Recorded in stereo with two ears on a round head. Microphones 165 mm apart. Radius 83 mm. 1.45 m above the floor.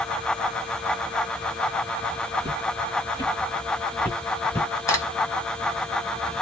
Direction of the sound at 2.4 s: 15° left (ahead or behind).